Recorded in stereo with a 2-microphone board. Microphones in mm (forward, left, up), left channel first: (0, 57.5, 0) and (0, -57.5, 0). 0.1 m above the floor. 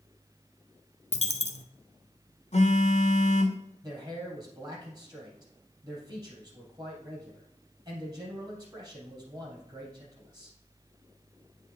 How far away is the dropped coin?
About 0.6 m.